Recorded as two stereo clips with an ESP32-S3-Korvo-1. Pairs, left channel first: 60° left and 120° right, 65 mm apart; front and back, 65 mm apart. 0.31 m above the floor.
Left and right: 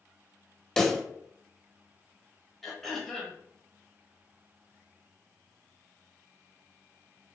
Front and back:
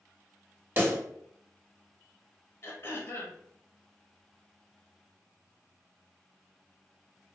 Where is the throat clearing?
20° right, 0.6 m.